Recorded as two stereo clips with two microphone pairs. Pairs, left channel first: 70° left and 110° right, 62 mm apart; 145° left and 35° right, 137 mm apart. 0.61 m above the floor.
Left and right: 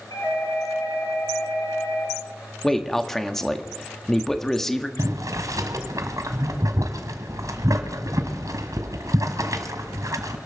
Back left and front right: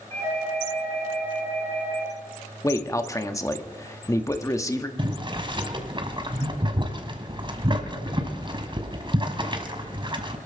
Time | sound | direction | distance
0.1 | a doorbell | 75° left | 7.5 m
2.6 | a man speaking | 145° left | 1.0 m
5.0 | boiling | 90° right | 1.5 m